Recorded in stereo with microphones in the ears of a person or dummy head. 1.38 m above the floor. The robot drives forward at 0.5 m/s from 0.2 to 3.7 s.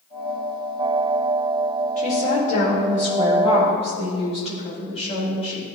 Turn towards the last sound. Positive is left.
turn(degrees=35)  # may be behind; listen again after turning